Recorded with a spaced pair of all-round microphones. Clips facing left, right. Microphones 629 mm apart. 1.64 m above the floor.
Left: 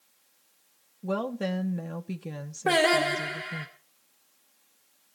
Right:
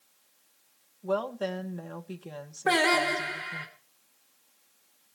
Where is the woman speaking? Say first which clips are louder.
Left 1 dB; 45° left (ahead or behind), 1.1 m.